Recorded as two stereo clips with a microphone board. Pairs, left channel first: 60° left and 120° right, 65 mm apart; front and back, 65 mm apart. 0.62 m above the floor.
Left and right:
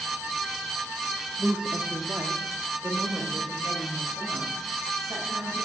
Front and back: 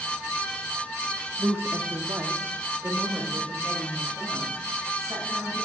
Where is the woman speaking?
150° left, 0.6 m; by 5.7 s 140° right, 3.5 m.